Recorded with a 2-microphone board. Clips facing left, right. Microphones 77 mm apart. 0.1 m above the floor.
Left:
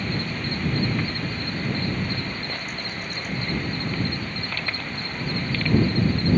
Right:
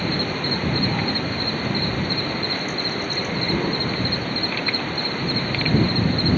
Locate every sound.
0.0 s an insect: 65° right (ahead or behind)